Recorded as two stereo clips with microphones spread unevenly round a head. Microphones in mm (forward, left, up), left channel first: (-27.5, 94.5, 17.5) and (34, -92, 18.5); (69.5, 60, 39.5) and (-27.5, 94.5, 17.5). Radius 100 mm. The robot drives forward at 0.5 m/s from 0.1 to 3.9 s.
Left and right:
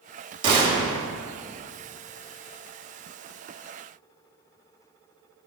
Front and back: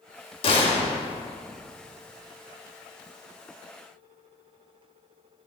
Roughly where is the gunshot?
Ahead.